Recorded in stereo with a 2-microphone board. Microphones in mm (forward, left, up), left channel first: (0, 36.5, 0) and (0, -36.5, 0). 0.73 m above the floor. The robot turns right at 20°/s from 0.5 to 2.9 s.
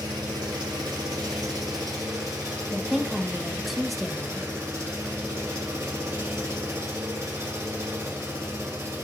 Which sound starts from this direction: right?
An engine running, at 0.0 s.